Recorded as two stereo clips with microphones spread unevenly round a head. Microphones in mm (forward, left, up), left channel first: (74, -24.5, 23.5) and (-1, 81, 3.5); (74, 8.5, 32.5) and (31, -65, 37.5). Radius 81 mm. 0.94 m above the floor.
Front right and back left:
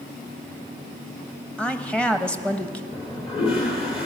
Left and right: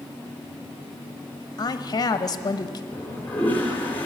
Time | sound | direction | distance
1.6 | a woman speaking | 30° left | 1.0 m
2.9 | a toilet flushing | 10° right | 3.5 m